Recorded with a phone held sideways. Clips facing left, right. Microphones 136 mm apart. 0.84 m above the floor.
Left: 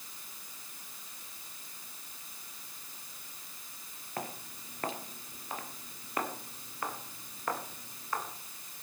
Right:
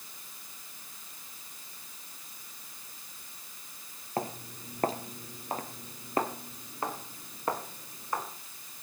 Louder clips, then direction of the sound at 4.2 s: Right 6 dB; 30° right (ahead or behind).